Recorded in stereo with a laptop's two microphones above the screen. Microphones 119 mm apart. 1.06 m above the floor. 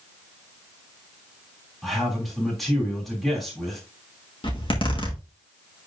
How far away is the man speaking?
About 2.5 m.